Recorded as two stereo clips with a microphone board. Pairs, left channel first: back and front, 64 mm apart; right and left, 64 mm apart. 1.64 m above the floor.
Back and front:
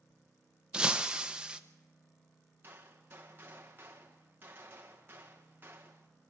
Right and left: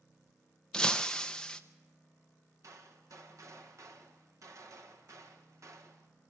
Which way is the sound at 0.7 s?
45° right.